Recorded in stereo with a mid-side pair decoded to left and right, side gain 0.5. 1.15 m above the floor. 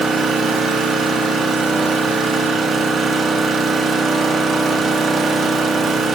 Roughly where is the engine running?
Ahead right.